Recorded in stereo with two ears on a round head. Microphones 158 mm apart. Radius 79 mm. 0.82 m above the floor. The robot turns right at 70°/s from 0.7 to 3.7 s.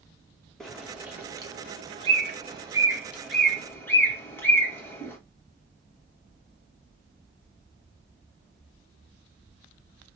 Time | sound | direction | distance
0.6 | a bird | centre (ahead or behind) | 1.0 m